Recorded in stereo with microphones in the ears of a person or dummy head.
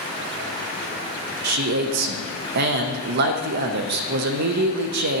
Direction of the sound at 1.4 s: 60° right (ahead or behind).